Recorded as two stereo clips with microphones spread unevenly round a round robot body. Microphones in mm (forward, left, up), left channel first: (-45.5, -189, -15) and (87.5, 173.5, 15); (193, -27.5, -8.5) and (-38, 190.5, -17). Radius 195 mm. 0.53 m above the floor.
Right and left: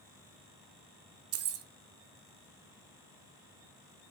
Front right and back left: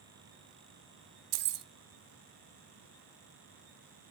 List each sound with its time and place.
1.3 s keys jangling: 125° left, 0.9 m